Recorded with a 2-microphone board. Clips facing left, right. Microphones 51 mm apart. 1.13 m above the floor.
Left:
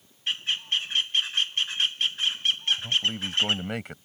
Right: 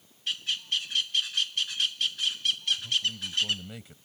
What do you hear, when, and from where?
0.3 s a bird: 35° left (ahead or behind)
2.8 s a man speaking: 65° left (ahead or behind)